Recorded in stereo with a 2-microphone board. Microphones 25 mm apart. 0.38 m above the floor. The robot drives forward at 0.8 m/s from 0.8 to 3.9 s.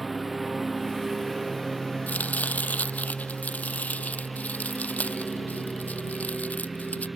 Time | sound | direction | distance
0.0 | a lawn mower | 5° right (ahead or behind) | ?
2.1 | chopping | 85° left | ?